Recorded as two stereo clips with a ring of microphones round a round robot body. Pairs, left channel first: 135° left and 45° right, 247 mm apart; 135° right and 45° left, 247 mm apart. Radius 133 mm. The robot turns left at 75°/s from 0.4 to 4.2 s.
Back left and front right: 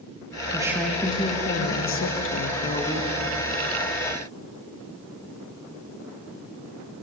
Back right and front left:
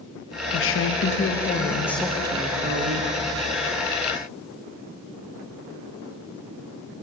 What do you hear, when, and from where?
0.5 s a woman speaking: 115° right, 0.9 m; by 3.1 s 55° left, 0.9 m